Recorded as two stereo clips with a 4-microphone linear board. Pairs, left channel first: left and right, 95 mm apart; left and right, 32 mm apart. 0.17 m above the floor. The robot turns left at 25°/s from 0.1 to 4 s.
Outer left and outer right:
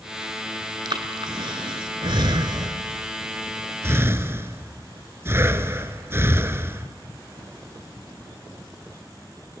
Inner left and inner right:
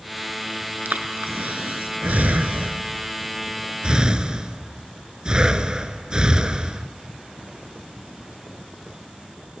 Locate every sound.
0.8 s breathing: 60° right (ahead or behind), 0.8 m; by 6.9 s 30° right (ahead or behind), 0.8 m